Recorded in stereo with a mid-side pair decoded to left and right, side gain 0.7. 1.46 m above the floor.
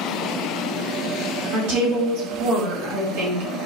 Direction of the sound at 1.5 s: 65° right.